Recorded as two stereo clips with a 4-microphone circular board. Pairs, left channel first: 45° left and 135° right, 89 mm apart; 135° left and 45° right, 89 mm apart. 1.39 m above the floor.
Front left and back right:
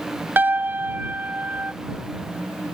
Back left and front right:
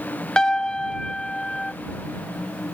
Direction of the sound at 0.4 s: 160° right.